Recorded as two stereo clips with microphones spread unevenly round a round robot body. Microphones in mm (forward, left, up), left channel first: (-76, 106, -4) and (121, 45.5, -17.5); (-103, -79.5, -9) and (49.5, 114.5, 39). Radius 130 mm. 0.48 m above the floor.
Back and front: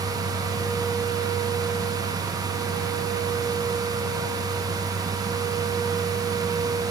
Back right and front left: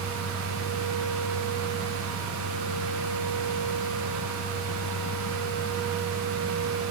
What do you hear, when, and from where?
Only background noise.